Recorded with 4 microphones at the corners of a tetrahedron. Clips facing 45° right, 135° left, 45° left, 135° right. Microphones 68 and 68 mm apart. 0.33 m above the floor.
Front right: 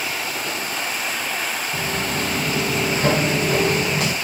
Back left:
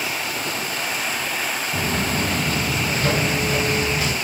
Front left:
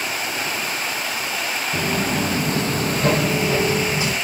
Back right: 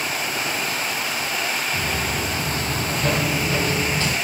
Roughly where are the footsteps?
Ahead left.